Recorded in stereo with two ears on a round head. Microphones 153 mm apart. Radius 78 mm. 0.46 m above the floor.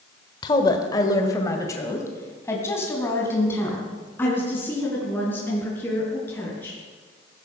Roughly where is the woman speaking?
Left.